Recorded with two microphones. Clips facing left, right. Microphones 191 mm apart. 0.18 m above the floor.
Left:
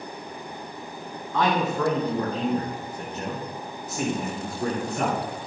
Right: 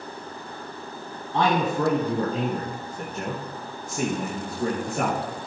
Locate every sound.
1.3 s a man speaking: 30° right (ahead or behind), 1.9 m; by 5.2 s 50° right (ahead or behind), 5 m